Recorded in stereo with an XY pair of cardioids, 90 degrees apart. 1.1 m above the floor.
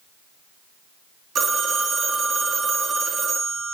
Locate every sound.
1.4 s a phone ringing: 60° right, 0.8 m